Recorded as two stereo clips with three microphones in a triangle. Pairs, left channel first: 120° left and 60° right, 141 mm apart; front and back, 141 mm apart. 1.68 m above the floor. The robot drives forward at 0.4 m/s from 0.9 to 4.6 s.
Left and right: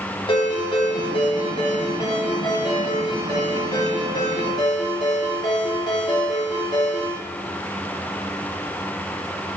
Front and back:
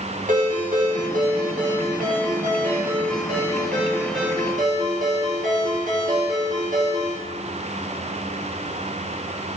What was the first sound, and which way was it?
A ringtone, 175° left.